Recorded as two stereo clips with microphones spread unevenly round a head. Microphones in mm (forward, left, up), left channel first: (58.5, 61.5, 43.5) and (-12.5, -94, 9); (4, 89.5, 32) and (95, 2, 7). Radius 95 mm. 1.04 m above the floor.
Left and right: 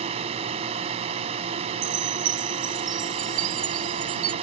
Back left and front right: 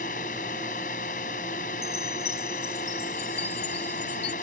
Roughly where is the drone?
Behind.